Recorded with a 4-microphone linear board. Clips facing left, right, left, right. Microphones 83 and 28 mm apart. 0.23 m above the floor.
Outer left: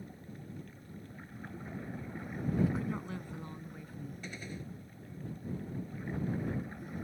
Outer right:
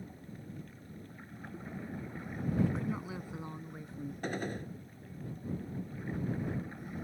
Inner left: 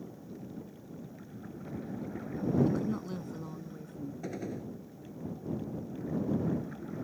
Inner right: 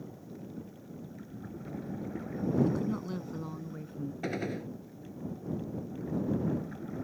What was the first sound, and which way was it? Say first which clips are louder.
A woman speaking: even, even; 5° left (ahead or behind).